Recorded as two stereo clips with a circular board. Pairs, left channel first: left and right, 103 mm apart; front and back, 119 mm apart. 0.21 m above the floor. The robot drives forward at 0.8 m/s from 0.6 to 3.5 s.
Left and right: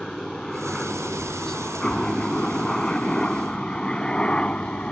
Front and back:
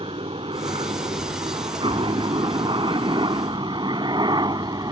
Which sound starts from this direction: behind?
A helicopter, at 0.0 s.